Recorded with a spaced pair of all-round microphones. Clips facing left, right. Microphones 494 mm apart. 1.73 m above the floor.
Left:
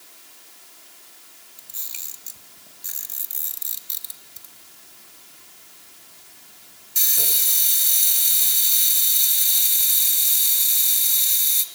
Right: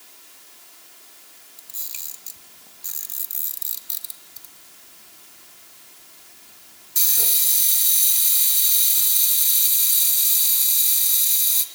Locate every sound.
1.6 s a camera shutter: 5° left (ahead or behind), 2 m